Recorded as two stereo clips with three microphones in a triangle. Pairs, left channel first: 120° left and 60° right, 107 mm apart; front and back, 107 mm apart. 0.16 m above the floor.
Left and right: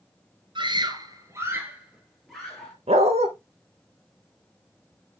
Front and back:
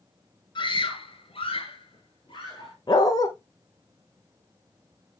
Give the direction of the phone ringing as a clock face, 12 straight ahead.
I don't hear a phone ringing.